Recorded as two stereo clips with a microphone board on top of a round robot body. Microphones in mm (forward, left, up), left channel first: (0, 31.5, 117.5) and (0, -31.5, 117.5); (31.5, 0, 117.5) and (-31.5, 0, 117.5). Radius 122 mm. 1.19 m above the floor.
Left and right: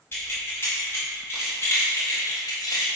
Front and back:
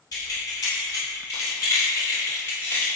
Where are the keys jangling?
30° left, 2.5 m; by 2.9 s 70° left, 0.7 m.